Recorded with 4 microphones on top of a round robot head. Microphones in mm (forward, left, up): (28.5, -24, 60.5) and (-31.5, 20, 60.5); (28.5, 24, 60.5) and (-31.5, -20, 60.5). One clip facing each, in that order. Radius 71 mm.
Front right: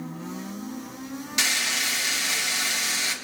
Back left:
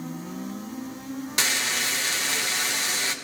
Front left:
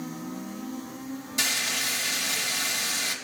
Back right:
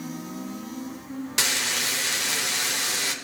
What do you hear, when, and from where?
1.4 s frying: 165° right, 3.5 m